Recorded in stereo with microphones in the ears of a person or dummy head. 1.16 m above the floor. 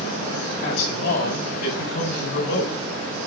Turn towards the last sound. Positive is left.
turn(degrees=60)  # may be behind; listen again after turning